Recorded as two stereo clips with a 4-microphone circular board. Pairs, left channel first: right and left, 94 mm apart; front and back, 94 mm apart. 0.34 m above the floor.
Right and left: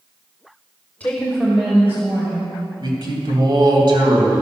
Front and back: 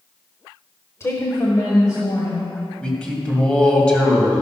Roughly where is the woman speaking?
Ahead right.